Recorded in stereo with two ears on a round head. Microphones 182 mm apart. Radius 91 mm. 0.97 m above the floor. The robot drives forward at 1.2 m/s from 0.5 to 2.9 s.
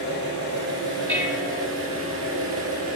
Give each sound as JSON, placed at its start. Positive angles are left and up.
{"t": 0.0, "sound": "an engine running", "side_deg": -60, "distance_m": 7.0}
{"t": 1.1, "sound": "dishes clattering", "side_deg": -10, "distance_m": 2.5}